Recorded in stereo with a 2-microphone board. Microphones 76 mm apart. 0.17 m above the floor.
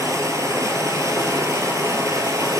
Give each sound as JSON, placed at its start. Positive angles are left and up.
{"t": 0.0, "sound": "running water", "side_deg": -50, "distance_m": 0.8}